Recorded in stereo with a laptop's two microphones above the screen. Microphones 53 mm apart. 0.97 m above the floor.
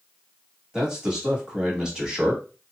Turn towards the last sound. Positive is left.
turn(degrees=-15)  # may be behind; listen again after turning